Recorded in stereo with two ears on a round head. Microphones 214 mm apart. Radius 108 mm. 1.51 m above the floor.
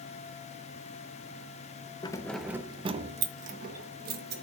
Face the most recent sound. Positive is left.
turn(degrees=-45)  # may be behind; listen again after turning